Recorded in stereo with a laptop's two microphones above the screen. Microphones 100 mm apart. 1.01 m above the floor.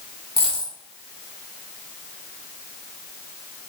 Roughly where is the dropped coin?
Left.